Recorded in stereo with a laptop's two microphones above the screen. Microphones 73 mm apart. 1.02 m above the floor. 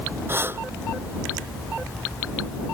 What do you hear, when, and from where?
0.3 s breathing: 30° right (ahead or behind)